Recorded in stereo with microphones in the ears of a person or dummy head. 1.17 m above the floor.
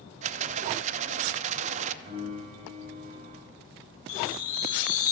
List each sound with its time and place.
0.2 s a rattle: 35° right (ahead or behind), 0.5 m
2.0 s a piano: 50° right (ahead or behind), 3 m
4.1 s a chime: 45° left (ahead or behind), 1.5 m